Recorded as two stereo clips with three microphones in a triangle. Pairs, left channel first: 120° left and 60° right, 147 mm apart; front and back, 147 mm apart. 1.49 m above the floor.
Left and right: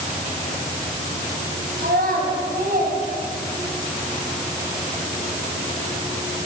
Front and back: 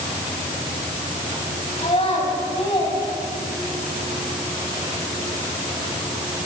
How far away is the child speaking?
About 8.5 m.